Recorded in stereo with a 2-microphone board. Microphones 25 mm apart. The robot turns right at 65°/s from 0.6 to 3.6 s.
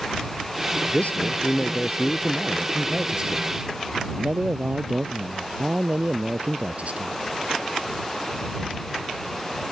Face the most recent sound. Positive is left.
turn(degrees=-120)